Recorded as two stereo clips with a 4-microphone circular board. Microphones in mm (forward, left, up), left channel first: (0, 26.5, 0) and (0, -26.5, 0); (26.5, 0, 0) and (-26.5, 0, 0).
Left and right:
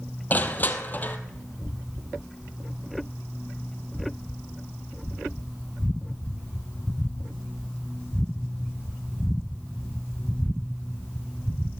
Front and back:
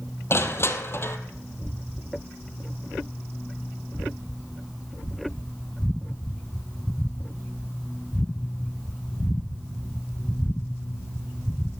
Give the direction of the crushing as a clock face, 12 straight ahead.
11 o'clock.